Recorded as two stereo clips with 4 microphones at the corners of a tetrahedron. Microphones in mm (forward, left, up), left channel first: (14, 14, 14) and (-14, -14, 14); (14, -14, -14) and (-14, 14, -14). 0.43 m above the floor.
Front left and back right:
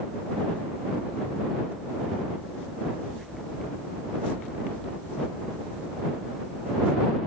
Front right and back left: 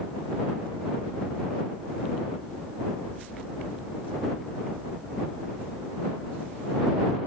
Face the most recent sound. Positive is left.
No sound to turn to.